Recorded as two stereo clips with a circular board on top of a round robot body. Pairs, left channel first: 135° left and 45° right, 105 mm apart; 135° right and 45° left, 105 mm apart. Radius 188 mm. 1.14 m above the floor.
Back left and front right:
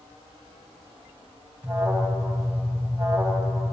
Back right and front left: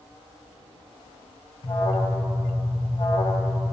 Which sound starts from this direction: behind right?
An alarm, at 1.6 s.